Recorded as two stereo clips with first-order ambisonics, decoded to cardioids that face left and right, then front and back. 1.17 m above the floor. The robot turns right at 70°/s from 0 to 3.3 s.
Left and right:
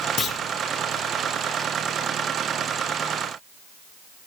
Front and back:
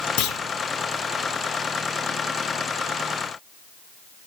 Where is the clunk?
25° left, 1.5 m; by 0.4 s 40° left, 1.5 m.